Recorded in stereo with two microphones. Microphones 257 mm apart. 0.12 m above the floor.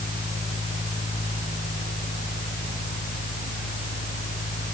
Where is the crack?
I don't hear a crack.